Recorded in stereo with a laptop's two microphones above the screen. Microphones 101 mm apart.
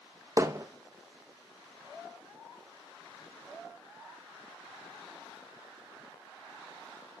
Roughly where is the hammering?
Right.